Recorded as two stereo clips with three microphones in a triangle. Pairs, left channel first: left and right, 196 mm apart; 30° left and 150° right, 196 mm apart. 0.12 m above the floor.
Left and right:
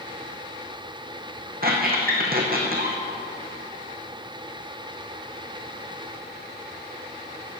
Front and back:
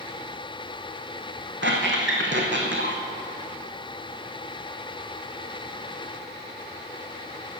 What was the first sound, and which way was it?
A squeak, 130° right.